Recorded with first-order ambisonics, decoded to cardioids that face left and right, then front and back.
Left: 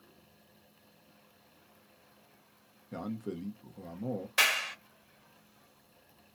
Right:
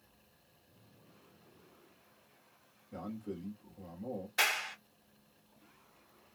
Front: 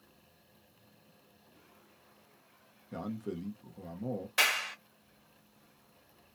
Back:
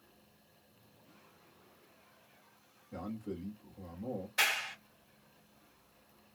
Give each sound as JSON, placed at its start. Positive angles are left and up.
{"t": 2.9, "sound": "a man speaking", "azimuth_deg": 50, "distance_m": 1.0}
{"t": 4.4, "sound": "a clap", "azimuth_deg": 55, "distance_m": 1.8}